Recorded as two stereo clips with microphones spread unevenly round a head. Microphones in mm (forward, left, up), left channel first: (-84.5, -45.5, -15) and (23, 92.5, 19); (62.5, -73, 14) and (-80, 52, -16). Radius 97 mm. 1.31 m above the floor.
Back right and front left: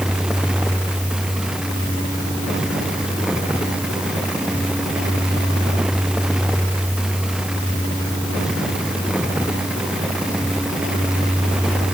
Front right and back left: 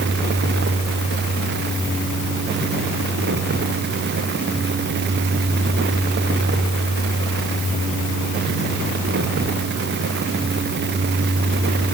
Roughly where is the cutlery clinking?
I don't hear cutlery clinking.